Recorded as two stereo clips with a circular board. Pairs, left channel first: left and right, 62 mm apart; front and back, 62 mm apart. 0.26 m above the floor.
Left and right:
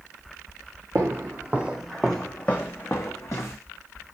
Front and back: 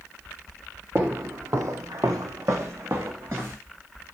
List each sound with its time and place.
0.9 s footsteps: 130° right, 0.7 m; by 3.6 s 130° left, 1.1 m